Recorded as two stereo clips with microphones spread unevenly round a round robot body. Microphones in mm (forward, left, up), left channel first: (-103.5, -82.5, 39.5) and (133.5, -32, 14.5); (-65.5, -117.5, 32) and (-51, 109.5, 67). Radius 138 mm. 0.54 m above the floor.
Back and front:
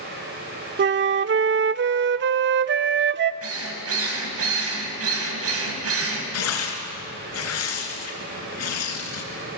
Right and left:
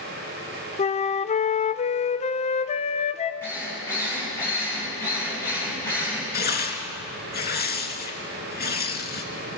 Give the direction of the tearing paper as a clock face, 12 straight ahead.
5 o'clock.